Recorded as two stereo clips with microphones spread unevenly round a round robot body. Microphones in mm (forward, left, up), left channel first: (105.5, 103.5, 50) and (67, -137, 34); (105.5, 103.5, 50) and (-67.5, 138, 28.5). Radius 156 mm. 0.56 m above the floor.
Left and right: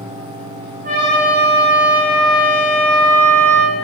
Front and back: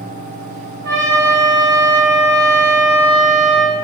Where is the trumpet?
165° right, 0.9 m.